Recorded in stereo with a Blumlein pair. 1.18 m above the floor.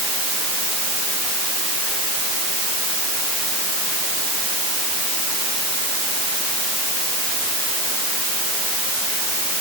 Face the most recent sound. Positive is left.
No sound to turn to.